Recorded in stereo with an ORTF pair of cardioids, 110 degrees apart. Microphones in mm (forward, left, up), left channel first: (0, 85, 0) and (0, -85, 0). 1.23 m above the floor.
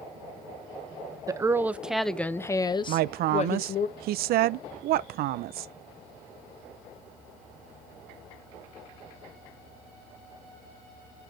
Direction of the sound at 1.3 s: 20° right.